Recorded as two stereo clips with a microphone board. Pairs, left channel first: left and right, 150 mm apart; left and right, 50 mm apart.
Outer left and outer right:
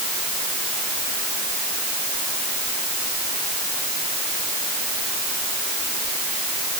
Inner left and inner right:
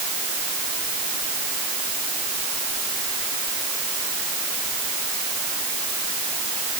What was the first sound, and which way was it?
Only background noise.